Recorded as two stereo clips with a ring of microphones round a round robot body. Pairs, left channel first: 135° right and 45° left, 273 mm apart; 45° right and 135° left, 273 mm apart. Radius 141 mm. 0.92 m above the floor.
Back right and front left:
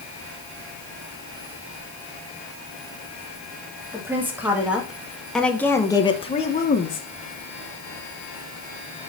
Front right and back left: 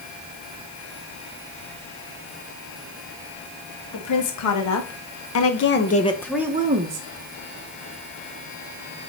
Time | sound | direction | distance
3.9 | a woman speaking | 35° right | 2.5 m